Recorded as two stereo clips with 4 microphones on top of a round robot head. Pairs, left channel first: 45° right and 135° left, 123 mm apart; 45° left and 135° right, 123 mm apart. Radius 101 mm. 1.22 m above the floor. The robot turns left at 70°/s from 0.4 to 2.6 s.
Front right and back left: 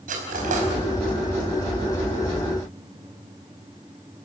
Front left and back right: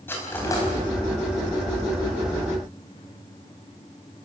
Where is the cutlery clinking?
120° left, 4.5 m; by 0.7 s 100° left, 4.5 m.